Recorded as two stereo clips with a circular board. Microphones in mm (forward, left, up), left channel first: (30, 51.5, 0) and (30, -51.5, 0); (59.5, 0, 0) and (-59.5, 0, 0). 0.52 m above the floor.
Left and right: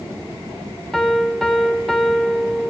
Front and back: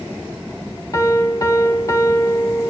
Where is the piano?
5° left, 1.0 m.